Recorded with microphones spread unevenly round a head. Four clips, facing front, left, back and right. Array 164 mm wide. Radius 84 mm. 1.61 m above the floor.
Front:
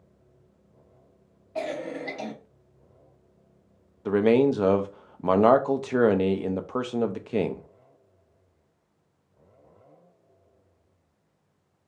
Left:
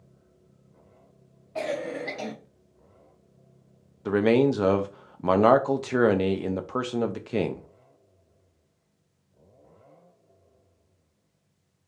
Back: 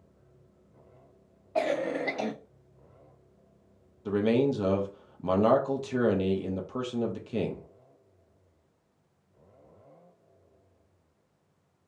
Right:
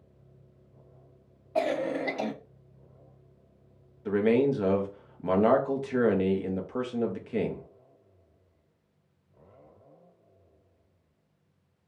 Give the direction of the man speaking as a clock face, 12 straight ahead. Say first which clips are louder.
Left 3 dB, front 5 dB; 11 o'clock.